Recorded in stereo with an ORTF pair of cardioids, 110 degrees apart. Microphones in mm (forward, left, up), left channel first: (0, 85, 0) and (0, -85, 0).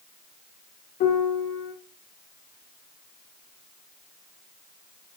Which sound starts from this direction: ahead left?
A piano, at 1.0 s.